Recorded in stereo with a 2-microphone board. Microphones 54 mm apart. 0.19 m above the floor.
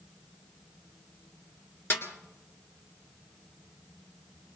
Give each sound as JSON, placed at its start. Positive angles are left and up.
{"t": 1.9, "sound": "a snare drum", "side_deg": 45, "distance_m": 2.0}